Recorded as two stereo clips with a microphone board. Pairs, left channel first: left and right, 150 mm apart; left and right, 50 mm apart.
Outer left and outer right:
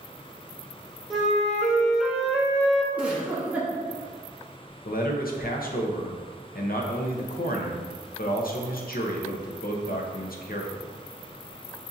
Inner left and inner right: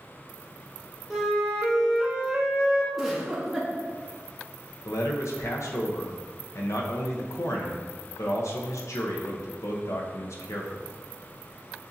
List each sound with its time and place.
1.1 s a flute: centre (ahead or behind), 0.9 m
2.9 s a giggle: 10° right (ahead or behind), 0.9 m
4.8 s a man speaking: 75° left (ahead or behind), 0.8 m